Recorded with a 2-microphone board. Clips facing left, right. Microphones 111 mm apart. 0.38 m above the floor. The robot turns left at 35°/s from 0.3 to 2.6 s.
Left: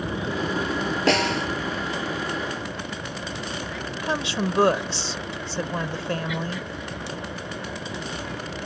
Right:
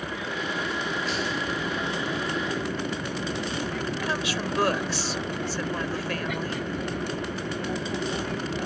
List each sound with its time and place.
0.0 s an aircraft: 30° left; by 8.7 s 50° right
1.1 s a snare drum: 85° left; by 1.5 s 80° left
4.0 s a woman speaking: 25° left (ahead or behind)